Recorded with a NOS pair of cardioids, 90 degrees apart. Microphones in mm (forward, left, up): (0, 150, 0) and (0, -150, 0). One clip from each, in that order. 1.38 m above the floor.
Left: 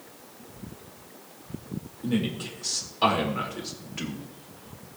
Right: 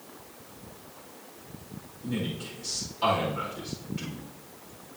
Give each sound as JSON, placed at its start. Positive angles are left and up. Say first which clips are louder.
{"t": 2.0, "sound": "a man speaking", "louder": "left 4 dB", "azimuth_deg": 55, "distance_m": 3.0}